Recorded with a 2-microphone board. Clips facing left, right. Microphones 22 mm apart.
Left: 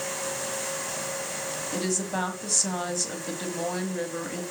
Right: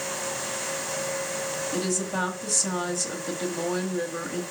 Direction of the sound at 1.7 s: 10° left (ahead or behind).